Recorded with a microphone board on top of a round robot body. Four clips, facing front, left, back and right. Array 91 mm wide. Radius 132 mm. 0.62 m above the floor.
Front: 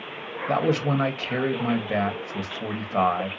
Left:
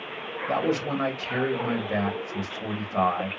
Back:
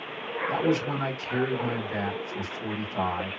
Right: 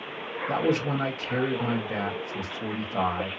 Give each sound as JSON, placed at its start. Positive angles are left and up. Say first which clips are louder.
{"t": 0.5, "sound": "a man speaking", "louder": "even, front 3 dB", "azimuth_deg": 10, "distance_m": 1.6}